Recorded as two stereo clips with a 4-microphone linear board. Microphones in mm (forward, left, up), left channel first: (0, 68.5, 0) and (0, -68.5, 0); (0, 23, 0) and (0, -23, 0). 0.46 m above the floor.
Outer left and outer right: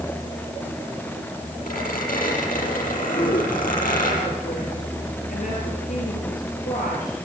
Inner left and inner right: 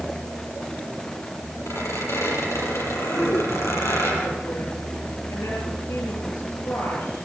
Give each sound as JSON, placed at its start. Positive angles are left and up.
{"t": 1.7, "sound": "a squeak", "side_deg": 85, "distance_m": 8.0}
{"t": 3.1, "sound": "a woman speaking", "side_deg": 85, "distance_m": 7.0}